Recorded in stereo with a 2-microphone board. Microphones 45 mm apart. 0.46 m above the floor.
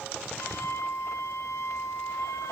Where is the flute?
85° left, 2.5 m.